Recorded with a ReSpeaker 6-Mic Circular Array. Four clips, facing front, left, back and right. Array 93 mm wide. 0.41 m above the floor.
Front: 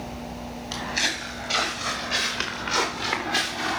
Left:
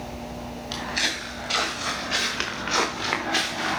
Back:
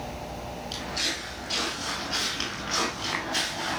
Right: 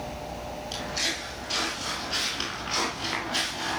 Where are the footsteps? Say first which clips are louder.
Left 6 dB, front 7 dB; 50° left, 5.5 m; by 3.8 s 75° left, 4.5 m.